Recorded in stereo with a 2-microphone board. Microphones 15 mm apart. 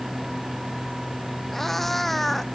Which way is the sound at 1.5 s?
20° left (ahead or behind).